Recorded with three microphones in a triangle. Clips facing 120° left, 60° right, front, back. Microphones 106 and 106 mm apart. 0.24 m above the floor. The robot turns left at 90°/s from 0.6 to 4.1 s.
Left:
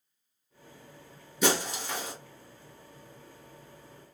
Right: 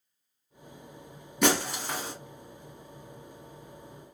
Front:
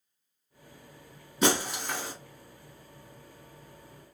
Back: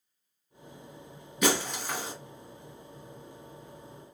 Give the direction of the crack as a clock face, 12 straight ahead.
I don't hear a crack.